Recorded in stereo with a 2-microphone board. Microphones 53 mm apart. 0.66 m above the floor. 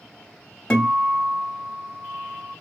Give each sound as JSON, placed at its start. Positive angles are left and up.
{"t": 0.7, "sound": "a guitar", "side_deg": 15, "distance_m": 1.3}